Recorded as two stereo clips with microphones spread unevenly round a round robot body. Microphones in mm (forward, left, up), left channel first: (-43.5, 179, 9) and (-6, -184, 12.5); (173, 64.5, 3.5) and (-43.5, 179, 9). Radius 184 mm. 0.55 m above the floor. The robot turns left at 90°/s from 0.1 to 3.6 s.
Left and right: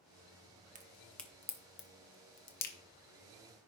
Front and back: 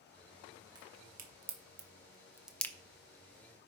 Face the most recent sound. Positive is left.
turn(degrees=-35)